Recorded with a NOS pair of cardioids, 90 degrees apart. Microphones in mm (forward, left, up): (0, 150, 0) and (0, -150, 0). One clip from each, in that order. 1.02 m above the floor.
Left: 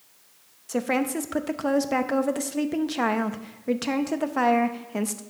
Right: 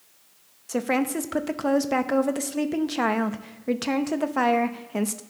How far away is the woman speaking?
About 0.7 m.